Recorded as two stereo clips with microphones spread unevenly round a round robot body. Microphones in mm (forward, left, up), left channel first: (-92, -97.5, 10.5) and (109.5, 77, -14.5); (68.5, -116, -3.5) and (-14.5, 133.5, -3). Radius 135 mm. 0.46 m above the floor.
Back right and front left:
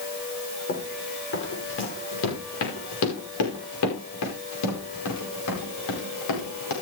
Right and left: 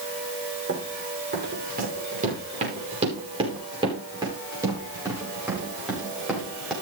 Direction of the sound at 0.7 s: 165° left.